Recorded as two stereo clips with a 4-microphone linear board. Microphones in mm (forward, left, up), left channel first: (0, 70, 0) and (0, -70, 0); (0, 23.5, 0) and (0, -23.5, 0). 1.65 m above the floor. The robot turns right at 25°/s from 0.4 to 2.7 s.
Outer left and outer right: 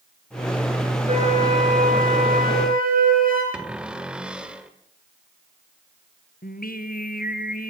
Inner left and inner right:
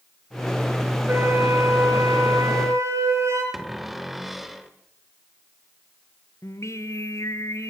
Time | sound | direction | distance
1.1 | a flute | 130° right | 6.5 m
3.5 | a cupboard door | 5° right (ahead or behind) | 1.9 m
6.4 | singing | 80° left | 1.6 m